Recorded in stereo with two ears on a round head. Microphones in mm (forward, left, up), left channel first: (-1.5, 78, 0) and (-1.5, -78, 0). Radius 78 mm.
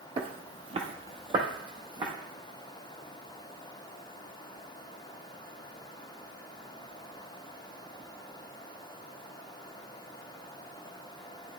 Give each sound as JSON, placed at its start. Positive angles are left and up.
{"t": 0.2, "sound": "footsteps", "side_deg": -35, "distance_m": 0.7}